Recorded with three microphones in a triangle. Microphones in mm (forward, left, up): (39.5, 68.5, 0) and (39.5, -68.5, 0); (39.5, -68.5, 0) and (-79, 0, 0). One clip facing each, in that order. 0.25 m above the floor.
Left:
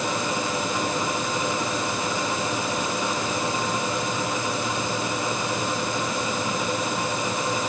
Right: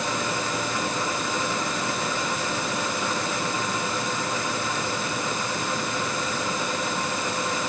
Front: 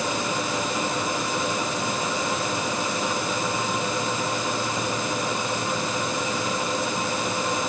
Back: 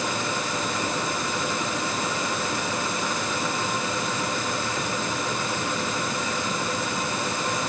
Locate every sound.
Only background noise.